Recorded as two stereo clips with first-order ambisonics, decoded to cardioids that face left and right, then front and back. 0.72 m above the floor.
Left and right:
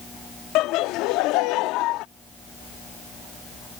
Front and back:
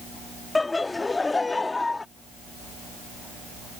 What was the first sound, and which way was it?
Laughter, 80° left.